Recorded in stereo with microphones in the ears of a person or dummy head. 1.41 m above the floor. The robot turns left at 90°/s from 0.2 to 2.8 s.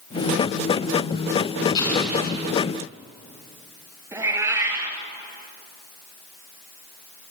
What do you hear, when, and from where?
1.8 s an explosion: 25° left, 5.5 m; by 2.6 s 50° right, 5.5 m
4.1 s a cat meowing: 15° right (ahead or behind), 3 m